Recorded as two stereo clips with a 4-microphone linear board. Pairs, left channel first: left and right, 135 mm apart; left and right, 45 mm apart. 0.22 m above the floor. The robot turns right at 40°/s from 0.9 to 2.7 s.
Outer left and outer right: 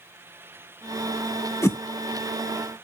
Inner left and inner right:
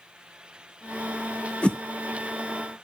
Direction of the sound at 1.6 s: 20° left (ahead or behind).